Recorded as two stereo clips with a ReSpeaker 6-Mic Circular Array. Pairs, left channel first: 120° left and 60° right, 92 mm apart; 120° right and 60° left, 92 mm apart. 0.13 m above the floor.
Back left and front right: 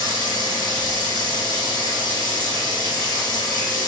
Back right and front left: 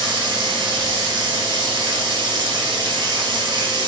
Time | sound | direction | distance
0.0 | running water | 80° left | 1.2 m